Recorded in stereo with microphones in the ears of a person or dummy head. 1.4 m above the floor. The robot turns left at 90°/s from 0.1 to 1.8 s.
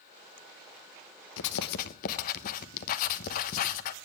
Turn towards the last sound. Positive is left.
turn(degrees=55)